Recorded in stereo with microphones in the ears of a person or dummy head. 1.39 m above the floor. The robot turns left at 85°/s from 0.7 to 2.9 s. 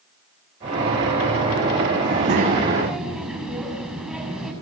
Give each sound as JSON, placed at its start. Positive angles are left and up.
{"t": 2.0, "sound": "a child speaking", "azimuth_deg": -105, "distance_m": 6.0}